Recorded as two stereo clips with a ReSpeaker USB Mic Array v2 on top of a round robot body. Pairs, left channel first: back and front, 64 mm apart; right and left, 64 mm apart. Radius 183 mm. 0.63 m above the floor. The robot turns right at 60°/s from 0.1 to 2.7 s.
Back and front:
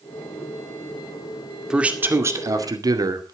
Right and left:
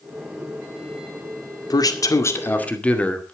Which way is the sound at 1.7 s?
80° right.